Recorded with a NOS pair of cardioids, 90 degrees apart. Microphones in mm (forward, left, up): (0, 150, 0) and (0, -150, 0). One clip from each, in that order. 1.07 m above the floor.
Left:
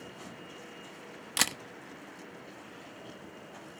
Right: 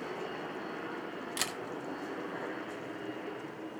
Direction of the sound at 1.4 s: 40° left.